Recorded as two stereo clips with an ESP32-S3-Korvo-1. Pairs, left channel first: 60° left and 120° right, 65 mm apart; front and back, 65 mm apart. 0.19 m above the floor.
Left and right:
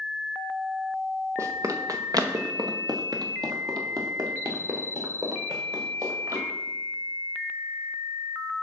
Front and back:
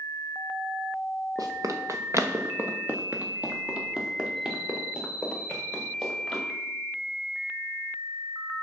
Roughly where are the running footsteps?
Behind.